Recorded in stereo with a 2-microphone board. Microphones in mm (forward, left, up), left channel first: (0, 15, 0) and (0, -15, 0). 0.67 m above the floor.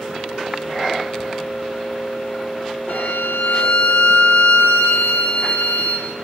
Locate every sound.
2.9 s a violin: 85° left, 2.5 m